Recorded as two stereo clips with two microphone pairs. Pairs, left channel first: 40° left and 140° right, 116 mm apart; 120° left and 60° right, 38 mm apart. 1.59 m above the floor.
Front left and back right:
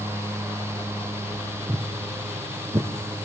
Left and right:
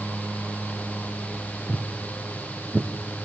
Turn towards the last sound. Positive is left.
turn(degrees=-120)